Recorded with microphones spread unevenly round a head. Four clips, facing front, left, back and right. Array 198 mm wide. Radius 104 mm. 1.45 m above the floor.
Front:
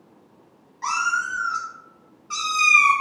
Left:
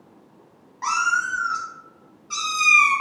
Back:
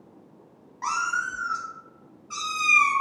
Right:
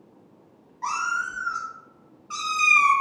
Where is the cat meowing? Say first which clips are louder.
Left 5 dB, front 3 dB; 80° left, 1.0 m; by 2.9 s 40° right, 1.3 m.